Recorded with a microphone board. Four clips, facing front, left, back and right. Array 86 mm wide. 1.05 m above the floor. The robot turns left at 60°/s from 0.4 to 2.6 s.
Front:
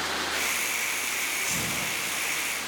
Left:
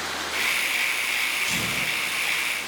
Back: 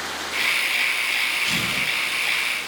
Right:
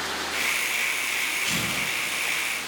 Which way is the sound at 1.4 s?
145° right.